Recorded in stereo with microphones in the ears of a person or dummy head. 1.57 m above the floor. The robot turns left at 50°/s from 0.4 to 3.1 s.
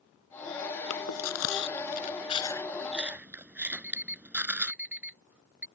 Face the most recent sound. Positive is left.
turn(degrees=0)  # may be behind; listen again after turning